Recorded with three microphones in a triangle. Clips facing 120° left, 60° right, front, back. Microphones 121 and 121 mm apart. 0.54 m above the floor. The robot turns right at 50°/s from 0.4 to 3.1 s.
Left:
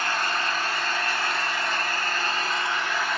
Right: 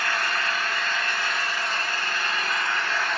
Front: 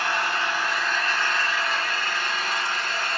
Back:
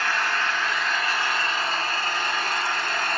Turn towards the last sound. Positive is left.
turn(degrees=-160)